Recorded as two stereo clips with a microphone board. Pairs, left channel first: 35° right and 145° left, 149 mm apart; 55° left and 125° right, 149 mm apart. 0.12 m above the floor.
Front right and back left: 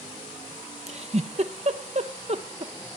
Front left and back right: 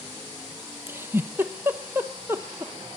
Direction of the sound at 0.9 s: 165° left.